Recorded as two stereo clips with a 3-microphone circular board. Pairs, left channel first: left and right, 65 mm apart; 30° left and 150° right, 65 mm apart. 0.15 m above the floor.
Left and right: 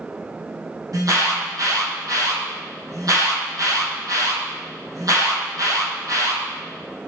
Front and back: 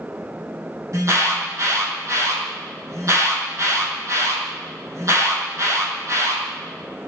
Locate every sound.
0.9 s an alarm: 115° right, 5.5 m